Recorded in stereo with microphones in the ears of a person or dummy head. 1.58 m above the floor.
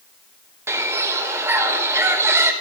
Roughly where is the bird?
Centre.